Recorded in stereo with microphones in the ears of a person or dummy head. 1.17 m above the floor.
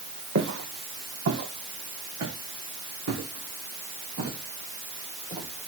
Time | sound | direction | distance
0.3 | footsteps | 60° right (ahead or behind) | 4 m